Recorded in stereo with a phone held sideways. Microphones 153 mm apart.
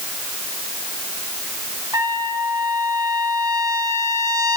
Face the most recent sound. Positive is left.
turn(degrees=-25)  # may be behind; listen again after turning